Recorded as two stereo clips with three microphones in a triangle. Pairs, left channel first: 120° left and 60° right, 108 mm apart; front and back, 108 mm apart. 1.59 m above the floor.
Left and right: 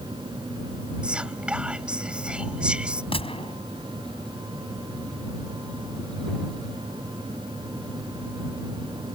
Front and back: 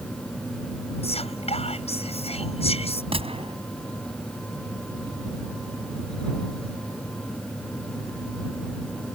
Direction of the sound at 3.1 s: 150° left.